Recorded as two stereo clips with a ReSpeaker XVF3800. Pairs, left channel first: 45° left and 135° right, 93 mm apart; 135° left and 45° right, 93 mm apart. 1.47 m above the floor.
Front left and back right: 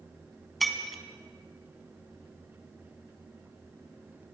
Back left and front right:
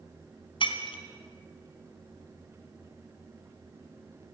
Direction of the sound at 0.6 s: 135° left.